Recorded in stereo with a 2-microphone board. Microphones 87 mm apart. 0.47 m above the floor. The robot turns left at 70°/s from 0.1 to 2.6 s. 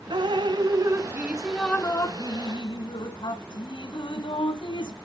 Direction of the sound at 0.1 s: 80° right.